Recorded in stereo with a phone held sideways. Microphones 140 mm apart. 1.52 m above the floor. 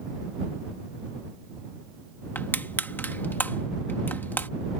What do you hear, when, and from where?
2.4 s crushing: 15° left (ahead or behind)